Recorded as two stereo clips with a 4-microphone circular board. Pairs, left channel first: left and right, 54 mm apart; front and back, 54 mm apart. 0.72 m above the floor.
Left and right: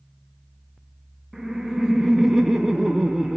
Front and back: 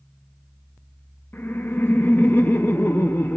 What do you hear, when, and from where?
1.3 s laughter: 5° right, 0.6 m